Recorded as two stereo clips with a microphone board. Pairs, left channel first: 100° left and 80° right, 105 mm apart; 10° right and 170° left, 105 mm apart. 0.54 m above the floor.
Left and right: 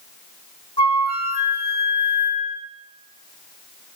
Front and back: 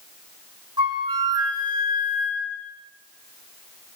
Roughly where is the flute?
Behind left.